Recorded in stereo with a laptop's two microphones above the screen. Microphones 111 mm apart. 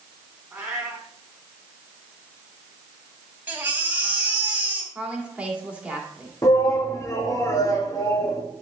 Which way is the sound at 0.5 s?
5° right (ahead or behind).